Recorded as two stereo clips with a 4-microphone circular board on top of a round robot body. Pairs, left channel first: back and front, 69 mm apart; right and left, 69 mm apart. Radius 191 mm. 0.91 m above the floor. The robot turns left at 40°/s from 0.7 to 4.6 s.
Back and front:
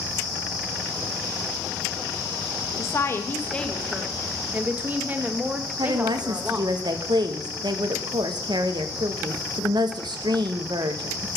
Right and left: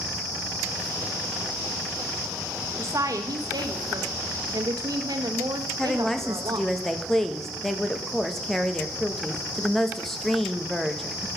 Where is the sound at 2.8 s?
135° left, 1.4 m; by 6.8 s 65° left, 1.4 m.